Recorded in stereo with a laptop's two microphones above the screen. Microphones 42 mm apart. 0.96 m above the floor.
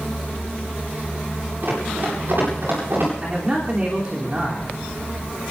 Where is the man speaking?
30° right (ahead or behind), 3 m.